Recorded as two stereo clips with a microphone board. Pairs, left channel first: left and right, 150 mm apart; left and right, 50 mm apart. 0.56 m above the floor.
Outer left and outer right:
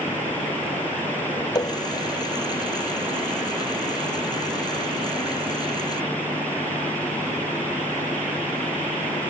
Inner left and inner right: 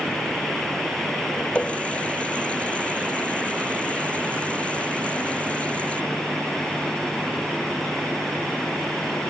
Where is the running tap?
30° left (ahead or behind).